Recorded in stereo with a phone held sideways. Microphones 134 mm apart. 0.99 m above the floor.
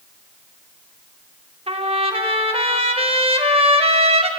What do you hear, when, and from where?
1.7 s a trumpet: 45° right (ahead or behind), 0.9 m